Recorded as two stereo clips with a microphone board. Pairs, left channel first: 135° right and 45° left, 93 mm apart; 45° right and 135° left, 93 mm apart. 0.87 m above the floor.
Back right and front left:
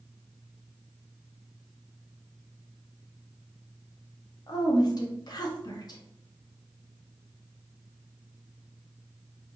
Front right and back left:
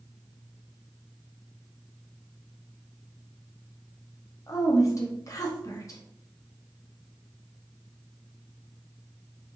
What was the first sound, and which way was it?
A woman speaking, 95° right.